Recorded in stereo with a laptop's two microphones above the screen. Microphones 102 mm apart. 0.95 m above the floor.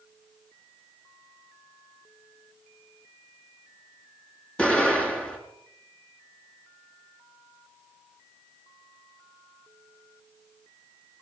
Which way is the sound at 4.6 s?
10° left (ahead or behind).